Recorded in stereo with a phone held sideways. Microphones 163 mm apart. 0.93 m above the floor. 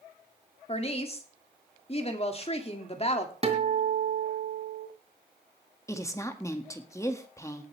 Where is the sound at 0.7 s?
40° left (ahead or behind), 1.9 m.